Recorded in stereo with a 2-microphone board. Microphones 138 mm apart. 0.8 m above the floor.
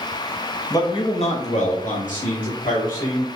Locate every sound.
0.7 s a man speaking: 25° left (ahead or behind), 0.7 m; by 3.2 s 75° left (ahead or behind), 2.5 m